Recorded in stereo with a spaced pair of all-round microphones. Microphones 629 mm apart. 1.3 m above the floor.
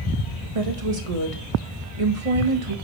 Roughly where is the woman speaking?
Right.